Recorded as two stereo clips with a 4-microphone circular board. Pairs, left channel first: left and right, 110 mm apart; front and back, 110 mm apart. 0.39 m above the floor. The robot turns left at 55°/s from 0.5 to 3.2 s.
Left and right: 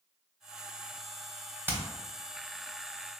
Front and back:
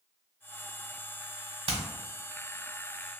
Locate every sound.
1.7 s hammering: 160° right, 1.0 m; by 1.8 s 165° right, 1.0 m